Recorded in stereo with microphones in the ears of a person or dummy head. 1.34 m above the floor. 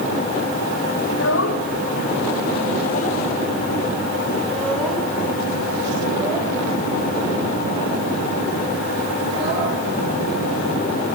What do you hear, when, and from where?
1.1 s a child speaking: 75° left (ahead or behind), 2.5 m; by 9.7 s 30° right (ahead or behind), 5.5 m